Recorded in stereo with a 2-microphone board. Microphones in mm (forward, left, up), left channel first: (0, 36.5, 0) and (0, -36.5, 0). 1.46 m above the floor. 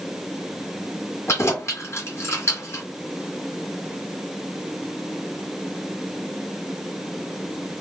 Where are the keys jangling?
35° left (ahead or behind), 1.5 m.